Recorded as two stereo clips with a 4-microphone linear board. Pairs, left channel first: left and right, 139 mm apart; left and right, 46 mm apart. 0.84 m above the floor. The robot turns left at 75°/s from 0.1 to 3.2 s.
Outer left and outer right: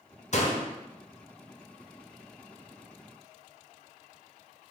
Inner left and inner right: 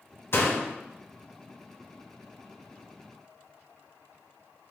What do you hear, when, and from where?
0.3 s a door slam: 55° left (ahead or behind), 0.5 m; by 0.7 s 30° left (ahead or behind), 0.5 m